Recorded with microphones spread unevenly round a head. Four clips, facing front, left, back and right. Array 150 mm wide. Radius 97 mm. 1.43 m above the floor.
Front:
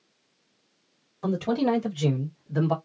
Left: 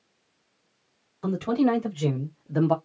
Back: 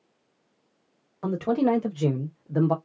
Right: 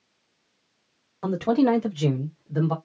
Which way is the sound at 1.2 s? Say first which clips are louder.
Right 2 dB, back 1 dB; 150° right.